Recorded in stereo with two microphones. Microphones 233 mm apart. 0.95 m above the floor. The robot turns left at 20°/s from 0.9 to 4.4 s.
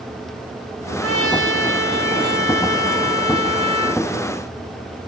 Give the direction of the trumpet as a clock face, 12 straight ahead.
3 o'clock.